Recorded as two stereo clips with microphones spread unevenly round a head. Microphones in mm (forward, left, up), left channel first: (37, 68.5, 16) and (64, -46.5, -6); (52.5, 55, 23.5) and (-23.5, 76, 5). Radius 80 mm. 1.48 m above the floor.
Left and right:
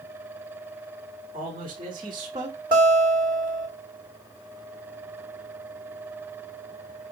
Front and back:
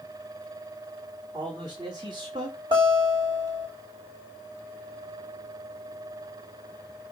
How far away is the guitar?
About 4.5 m.